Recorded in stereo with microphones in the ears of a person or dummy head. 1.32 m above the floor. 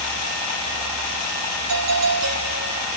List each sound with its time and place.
1.7 s a doorbell: 80° right, 5.5 m